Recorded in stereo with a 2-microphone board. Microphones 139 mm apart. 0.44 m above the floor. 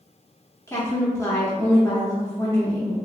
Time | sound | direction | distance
0.7 | a woman speaking | 20° left (ahead or behind) | 0.8 m